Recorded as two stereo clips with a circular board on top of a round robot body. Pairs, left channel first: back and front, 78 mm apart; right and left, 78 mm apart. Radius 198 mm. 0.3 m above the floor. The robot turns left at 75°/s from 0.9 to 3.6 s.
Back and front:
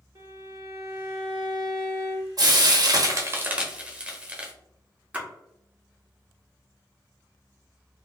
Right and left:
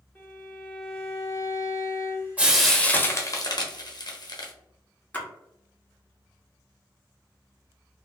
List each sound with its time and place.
0.1 s a violin: 20° right, 1.8 m; by 2.3 s 120° right, 1.8 m
2.4 s frying: 20° left, 1.0 m; by 4.5 s 70° right, 1.0 m
5.1 s a splash: 50° right, 1.4 m